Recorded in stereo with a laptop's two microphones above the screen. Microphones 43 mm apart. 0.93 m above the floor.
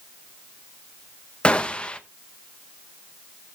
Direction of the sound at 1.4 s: 25° left (ahead or behind).